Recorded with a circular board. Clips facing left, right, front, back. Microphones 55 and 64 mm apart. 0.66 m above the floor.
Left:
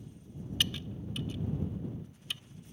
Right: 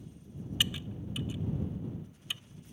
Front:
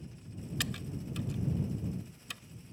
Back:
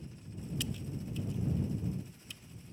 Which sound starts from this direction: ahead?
Typing on a keyboard, at 0.6 s.